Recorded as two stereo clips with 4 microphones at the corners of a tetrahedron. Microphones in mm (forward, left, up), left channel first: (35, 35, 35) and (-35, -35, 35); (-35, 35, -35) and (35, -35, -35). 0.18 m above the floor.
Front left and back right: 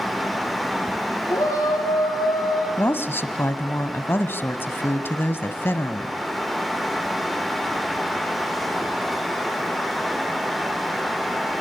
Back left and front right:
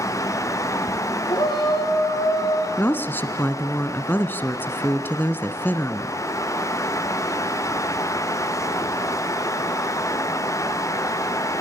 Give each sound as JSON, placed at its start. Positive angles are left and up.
{"t": 1.3, "sound": "a shout", "azimuth_deg": 100, "distance_m": 6.0}
{"t": 2.8, "sound": "a woman speaking", "azimuth_deg": 90, "distance_m": 1.3}